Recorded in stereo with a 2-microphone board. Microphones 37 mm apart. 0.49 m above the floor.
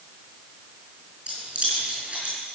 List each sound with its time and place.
1.3 s keys jangling: 30° right (ahead or behind), 7 m